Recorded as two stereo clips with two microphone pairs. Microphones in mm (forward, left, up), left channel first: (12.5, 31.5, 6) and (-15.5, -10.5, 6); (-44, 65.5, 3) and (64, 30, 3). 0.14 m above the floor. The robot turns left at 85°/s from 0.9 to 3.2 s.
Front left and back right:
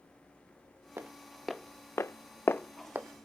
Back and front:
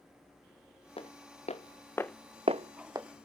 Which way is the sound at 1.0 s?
165° right.